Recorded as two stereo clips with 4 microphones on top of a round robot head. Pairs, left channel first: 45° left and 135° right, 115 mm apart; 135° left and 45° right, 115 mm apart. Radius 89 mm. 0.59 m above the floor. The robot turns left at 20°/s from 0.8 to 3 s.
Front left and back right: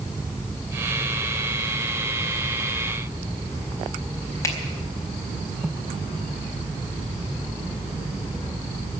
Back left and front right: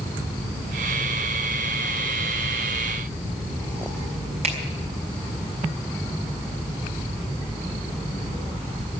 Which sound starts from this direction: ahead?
A finger snap, at 4.4 s.